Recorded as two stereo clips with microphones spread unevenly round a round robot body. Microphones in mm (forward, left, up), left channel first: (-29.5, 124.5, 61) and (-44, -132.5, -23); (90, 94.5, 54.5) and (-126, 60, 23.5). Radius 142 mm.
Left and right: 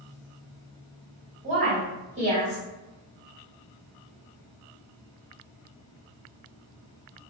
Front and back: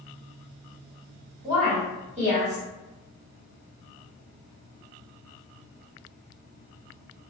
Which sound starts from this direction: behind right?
A woman speaking, at 1.4 s.